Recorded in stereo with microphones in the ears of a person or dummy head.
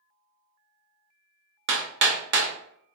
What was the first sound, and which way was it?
Hammering, 65° right (ahead or behind).